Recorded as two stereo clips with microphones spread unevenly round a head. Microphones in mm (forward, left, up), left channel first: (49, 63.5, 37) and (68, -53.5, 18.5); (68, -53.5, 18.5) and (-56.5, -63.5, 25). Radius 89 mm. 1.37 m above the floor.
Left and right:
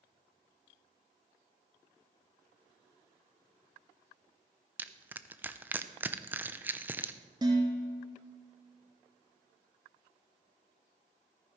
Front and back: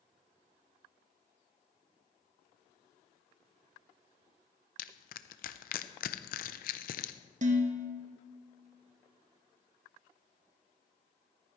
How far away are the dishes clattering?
About 1.3 m.